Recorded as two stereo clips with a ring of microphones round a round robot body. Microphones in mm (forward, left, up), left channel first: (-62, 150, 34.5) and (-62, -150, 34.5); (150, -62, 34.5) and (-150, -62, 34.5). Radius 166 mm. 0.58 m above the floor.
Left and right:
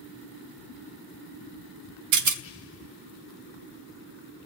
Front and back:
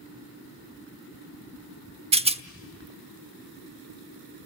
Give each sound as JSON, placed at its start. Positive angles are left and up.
{"t": 2.1, "sound": "a rattle", "azimuth_deg": -110, "distance_m": 1.0}